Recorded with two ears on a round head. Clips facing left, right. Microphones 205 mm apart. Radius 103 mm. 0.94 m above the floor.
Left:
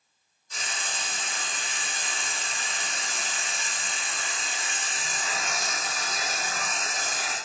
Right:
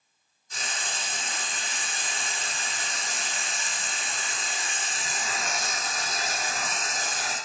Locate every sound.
0.5 s frying: 40° right (ahead or behind), 2 m